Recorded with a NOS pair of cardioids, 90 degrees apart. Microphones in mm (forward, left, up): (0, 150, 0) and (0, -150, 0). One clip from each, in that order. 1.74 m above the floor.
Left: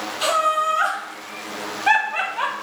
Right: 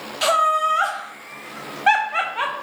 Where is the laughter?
25° right, 0.9 m.